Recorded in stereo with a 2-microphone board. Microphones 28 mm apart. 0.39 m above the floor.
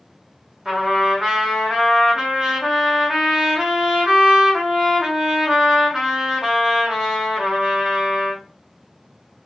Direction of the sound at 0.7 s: 20° right (ahead or behind).